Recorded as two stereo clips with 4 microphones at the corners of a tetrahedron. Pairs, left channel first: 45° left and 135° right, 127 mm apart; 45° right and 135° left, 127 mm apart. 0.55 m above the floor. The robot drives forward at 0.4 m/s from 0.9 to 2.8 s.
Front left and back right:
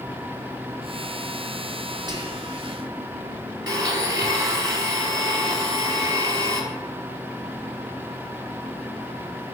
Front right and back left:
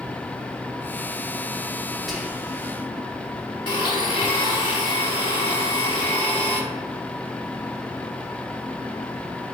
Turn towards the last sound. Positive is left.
turn(degrees=-90)